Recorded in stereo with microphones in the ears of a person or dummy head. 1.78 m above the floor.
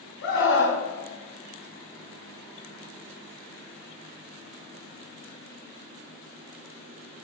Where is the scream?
70° left (ahead or behind), 4 m.